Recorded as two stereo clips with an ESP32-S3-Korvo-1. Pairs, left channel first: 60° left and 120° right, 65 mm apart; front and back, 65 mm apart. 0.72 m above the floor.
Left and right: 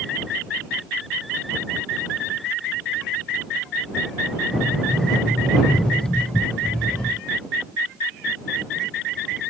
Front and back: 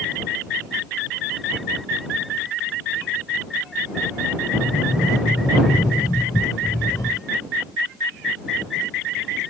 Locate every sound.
4.5 s a sliding door: 15° right